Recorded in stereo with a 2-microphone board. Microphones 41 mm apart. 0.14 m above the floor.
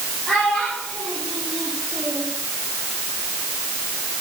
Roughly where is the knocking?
No knocking in this recording.